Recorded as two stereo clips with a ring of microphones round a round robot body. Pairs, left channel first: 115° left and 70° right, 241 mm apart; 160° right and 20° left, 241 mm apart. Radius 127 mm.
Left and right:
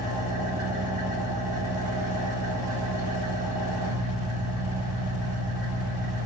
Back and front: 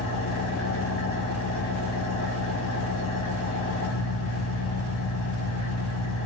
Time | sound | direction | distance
0.0 | an engine running | 125° right | 2 m